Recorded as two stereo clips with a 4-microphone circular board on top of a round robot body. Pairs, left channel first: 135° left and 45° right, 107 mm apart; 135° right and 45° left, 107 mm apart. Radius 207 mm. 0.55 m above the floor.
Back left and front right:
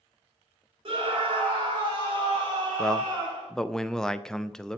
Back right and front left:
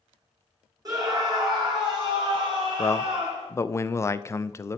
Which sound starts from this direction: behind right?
A man speaking, at 2.8 s.